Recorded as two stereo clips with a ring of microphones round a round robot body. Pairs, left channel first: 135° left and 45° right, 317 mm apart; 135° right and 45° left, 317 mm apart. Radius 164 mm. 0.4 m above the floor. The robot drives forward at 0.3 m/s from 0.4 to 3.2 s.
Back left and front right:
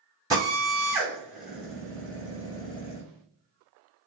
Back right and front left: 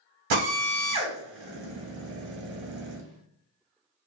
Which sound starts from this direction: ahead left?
A drill, at 0.3 s.